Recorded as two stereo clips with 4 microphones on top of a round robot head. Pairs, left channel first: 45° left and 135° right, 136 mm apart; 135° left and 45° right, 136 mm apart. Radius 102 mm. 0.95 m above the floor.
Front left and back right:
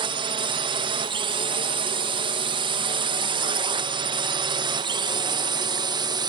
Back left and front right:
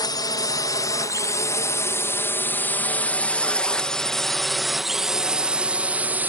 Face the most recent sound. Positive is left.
turn(degrees=-110)